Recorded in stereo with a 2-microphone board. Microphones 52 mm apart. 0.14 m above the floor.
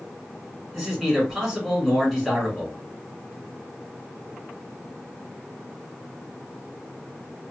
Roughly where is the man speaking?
Centre.